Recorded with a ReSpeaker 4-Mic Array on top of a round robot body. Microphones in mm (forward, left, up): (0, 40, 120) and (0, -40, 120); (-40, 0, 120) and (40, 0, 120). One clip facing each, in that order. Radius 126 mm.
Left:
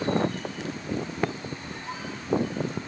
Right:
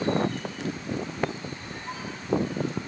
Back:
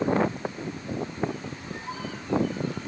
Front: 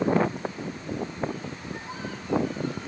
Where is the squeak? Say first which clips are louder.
Even, even; 140° right, 3.5 m.